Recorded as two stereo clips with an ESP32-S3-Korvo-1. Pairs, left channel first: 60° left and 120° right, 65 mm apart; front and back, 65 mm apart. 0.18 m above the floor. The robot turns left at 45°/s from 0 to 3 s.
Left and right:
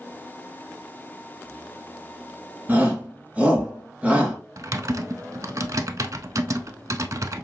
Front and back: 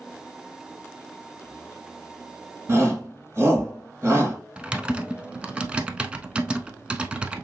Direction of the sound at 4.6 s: 110° right.